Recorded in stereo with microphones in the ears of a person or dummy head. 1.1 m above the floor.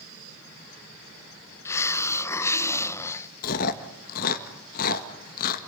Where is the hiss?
20° left (ahead or behind), 0.6 m.